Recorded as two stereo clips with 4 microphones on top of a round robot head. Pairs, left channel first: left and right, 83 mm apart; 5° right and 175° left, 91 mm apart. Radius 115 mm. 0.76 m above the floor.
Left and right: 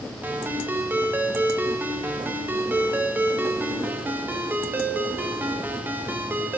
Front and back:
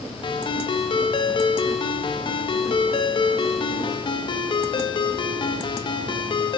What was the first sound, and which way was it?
A ringtone, 25° right.